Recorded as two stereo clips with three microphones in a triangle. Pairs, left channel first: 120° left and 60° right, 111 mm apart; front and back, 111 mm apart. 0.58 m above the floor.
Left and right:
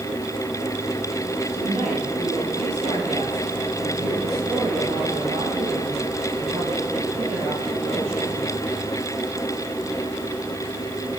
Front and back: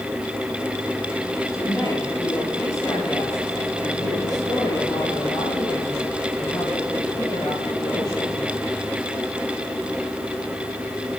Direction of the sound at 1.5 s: 60° right.